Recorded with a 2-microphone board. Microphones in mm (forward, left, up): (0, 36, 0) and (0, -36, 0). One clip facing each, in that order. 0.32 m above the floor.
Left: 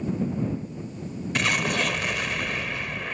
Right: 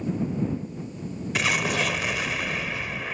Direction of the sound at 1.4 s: Centre (ahead or behind).